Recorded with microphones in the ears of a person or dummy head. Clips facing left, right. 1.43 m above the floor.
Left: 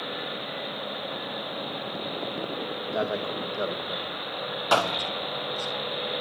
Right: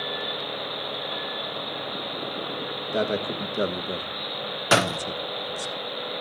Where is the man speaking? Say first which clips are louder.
Right 3 dB; 40° right (ahead or behind), 2.5 m; by 5.7 s 50° right (ahead or behind), 0.9 m.